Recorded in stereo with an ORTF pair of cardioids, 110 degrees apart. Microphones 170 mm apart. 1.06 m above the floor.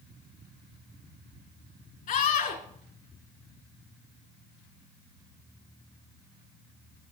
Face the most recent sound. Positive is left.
turn(degrees=55)